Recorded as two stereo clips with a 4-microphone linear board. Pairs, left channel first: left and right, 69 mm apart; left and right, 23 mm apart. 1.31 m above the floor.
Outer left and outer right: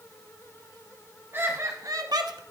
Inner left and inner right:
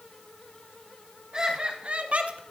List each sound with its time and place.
1.3 s laughter: 35° right (ahead or behind), 1.5 m; by 2.4 s 85° right, 1.1 m